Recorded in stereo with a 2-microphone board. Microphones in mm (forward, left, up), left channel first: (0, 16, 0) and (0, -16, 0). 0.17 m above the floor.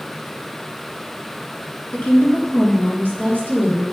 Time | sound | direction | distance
1.9 | a woman speaking | 55° left (ahead or behind) | 2 m